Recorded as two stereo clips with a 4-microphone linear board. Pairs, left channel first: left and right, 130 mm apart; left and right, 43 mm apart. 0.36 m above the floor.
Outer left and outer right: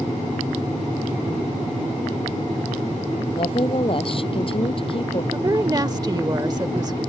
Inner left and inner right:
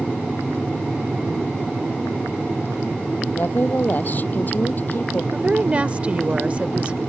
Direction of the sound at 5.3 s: 30° right (ahead or behind).